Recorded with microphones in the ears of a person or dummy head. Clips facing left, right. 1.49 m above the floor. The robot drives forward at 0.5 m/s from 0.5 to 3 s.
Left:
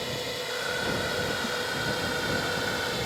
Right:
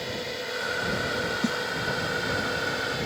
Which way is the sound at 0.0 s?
Centre (ahead or behind).